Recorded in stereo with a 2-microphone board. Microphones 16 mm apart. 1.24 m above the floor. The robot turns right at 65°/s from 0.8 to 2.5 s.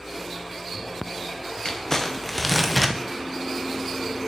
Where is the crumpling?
125° left, 0.8 m; by 3.0 s straight behind, 0.8 m.